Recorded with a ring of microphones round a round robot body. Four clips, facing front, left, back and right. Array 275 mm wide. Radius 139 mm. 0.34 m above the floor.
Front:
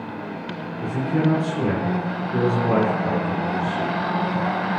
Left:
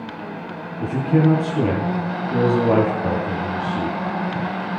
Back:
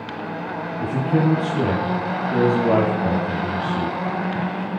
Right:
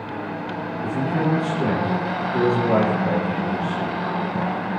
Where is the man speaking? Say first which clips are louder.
Left 5 dB, back 1 dB; 120° left, 9 m.